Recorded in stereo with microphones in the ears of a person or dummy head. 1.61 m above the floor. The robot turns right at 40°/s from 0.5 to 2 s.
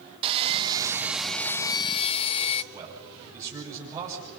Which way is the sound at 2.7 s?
15° right (ahead or behind).